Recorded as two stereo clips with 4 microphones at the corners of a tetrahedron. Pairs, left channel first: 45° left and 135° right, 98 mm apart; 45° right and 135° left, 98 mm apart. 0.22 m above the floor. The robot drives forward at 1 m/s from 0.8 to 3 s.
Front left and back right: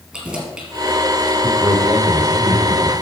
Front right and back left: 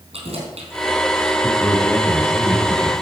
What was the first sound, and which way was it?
Keys jangling, 140° left.